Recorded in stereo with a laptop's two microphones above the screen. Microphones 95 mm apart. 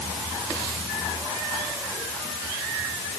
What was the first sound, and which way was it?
Only background noise.